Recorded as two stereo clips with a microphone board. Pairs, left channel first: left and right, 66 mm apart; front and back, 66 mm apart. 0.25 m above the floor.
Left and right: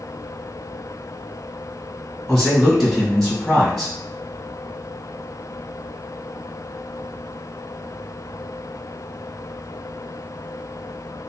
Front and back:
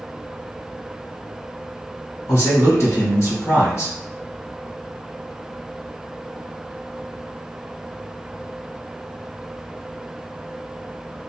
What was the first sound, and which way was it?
A man speaking, straight ahead.